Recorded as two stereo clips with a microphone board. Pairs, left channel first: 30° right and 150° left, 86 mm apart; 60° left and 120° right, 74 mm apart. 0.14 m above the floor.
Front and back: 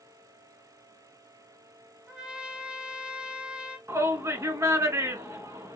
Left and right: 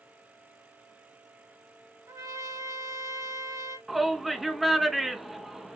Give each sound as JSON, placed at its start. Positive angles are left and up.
{"t": 2.1, "sound": "a trumpet", "azimuth_deg": -135, "distance_m": 1.4}
{"t": 3.9, "sound": "a shout", "azimuth_deg": 150, "distance_m": 1.2}